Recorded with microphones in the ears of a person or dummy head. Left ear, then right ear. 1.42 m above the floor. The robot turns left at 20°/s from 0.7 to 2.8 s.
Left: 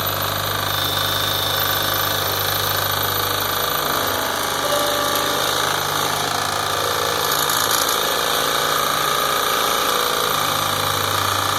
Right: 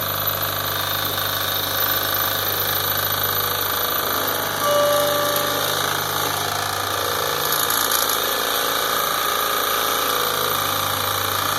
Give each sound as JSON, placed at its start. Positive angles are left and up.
{"t": 4.6, "sound": "a guitar", "side_deg": -40, "distance_m": 10.0}